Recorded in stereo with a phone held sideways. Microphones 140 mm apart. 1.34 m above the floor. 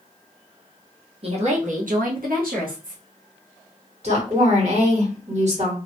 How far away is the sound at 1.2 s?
About 0.7 m.